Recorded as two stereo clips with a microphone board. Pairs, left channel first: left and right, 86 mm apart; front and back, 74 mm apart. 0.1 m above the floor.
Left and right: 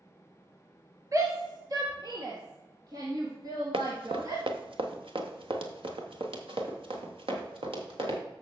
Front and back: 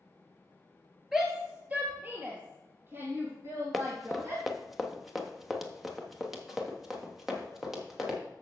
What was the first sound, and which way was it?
A shout, 95° right.